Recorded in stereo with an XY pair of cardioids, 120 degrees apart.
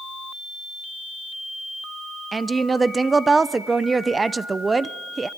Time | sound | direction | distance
2.3 | a woman speaking | 20° right | 0.7 m